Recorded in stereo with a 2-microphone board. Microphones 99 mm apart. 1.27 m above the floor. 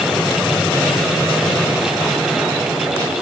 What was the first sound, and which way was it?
Only background noise.